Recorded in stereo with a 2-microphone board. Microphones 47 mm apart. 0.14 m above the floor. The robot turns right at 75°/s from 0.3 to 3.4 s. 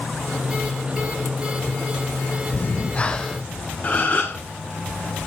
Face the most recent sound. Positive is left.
turn(degrees=35)  # may be behind; listen again after turning